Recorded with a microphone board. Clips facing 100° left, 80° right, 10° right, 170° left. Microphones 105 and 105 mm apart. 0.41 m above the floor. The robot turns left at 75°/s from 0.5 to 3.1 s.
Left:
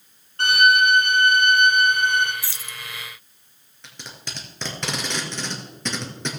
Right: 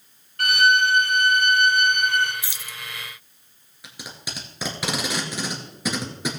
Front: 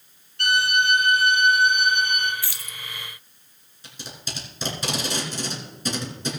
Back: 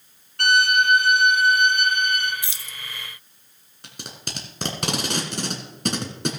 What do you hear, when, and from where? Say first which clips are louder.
0.4 s a violin: left 2 dB, back 3 dB; 155° left, 2.5 m; by 2.3 s 20° left, 2.5 m
2.4 s keys jangling: left 1 dB, front 1 dB; 130° right, 0.6 m; by 2.8 s 155° right, 0.6 m
3.8 s tape being pulled: right 2 dB, back 1 dB; 160° right, 2 m